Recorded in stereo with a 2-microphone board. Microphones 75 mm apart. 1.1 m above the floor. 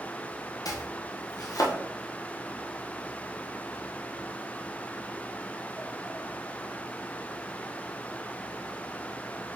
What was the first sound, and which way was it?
Chopping, 50° left (ahead or behind).